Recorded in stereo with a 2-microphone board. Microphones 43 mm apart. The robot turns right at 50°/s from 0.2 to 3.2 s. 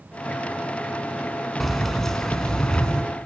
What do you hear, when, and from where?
1.6 s keys jangling: centre (ahead or behind), 0.8 m; by 3.0 s 20° left (ahead or behind), 0.8 m